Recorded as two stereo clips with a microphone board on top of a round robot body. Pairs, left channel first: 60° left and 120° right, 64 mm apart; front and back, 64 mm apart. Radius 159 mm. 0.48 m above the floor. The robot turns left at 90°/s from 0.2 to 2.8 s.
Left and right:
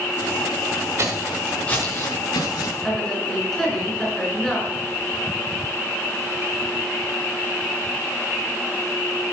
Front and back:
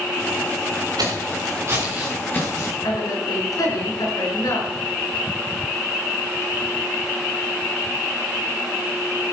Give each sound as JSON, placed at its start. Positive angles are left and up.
{"t": 1.0, "sound": "footsteps", "azimuth_deg": -165, "distance_m": 5.0}
{"t": 2.8, "sound": "a woman speaking", "azimuth_deg": -25, "distance_m": 7.0}